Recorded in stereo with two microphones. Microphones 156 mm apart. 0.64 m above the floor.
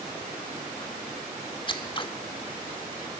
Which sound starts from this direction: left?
Scissors, at 1.7 s.